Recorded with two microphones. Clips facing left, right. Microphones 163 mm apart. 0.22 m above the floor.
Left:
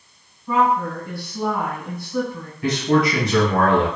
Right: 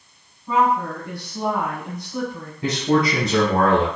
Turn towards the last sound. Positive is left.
turn(degrees=-25)  # may be behind; listen again after turning